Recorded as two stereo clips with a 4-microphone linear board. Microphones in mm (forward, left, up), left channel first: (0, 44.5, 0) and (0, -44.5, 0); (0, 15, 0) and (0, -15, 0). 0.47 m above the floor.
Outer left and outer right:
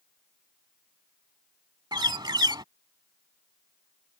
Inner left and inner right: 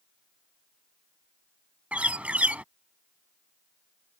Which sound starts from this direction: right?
A bird, at 1.9 s.